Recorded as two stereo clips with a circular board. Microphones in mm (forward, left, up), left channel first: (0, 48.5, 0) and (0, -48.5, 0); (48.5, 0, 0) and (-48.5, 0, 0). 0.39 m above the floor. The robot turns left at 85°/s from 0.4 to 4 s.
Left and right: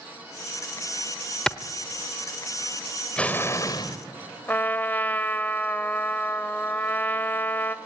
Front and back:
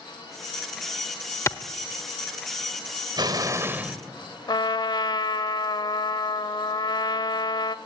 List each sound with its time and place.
1.5 s a clap: 15° left, 1.0 m; by 1.6 s 5° left, 1.0 m
3.2 s an explosion: 165° left, 1.9 m; by 4.0 s 100° left, 1.9 m
4.5 s a trumpet: 25° left, 1.1 m